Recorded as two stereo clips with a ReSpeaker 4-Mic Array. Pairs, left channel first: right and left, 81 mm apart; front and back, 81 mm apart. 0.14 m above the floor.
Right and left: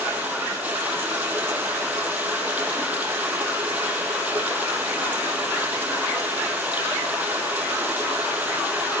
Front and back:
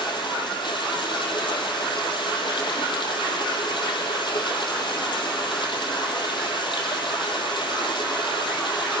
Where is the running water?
20° left, 4 m.